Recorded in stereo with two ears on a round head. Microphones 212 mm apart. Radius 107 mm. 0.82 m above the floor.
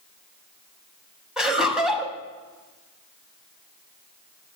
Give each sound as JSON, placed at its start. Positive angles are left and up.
{"t": 1.4, "sound": "laughter", "side_deg": -5, "distance_m": 1.3}